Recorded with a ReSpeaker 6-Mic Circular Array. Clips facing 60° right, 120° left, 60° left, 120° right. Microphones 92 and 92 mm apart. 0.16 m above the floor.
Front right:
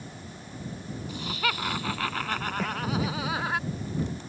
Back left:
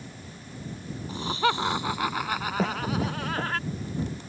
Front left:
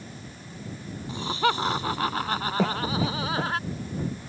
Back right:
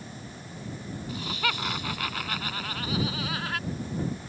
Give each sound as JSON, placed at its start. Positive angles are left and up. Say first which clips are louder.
{"t": 1.1, "sound": "laughter", "louder": "back left 6 dB, front left 7 dB", "azimuth_deg": 95}
{"t": 2.6, "sound": "a cough", "louder": "back left 3 dB, front left 5 dB", "azimuth_deg": 60}